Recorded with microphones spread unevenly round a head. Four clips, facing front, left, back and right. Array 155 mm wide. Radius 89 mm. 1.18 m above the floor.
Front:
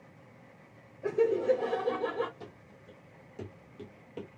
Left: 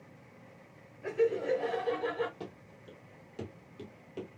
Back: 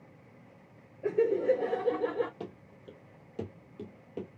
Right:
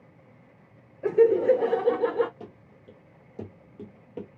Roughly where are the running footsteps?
Behind.